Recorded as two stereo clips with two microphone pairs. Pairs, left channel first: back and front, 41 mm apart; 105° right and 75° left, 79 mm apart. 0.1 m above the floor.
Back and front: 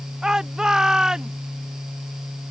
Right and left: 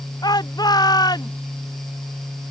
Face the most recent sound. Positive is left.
turn(degrees=-75)